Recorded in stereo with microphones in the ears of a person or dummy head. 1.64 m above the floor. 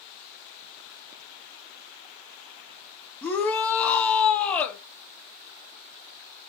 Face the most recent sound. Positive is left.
turn(degrees=20)  # may be behind; listen again after turning